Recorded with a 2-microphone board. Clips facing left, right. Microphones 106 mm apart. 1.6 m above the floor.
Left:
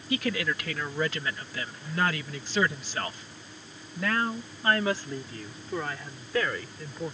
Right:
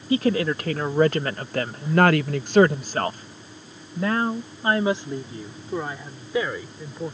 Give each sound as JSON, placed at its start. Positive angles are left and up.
{"t": 0.1, "sound": "a woman speaking", "side_deg": -40}